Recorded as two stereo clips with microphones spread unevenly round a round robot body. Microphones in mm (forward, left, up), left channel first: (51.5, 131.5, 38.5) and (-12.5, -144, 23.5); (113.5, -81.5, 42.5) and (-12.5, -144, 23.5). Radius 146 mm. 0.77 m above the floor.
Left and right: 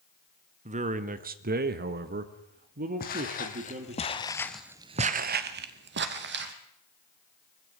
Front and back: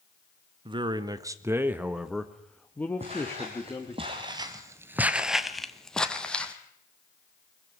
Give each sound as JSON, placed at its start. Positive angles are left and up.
{"t": 0.7, "sound": "a man speaking", "azimuth_deg": -155, "distance_m": 1.2}
{"t": 3.0, "sound": "footsteps", "azimuth_deg": 135, "distance_m": 2.0}